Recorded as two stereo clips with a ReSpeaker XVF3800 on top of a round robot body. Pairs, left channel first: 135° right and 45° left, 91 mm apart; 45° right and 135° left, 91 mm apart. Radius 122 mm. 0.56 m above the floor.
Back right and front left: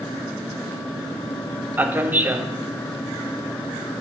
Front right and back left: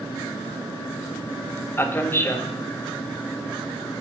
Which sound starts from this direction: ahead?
A man speaking, at 1.8 s.